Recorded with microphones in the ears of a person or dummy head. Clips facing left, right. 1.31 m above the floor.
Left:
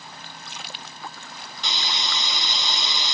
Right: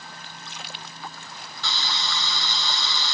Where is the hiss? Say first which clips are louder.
Even; 15° left (ahead or behind), 0.5 m.